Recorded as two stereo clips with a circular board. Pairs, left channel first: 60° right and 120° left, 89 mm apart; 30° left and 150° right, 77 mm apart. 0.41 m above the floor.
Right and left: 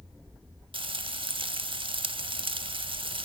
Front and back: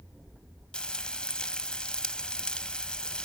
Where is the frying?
110° left, 0.7 m.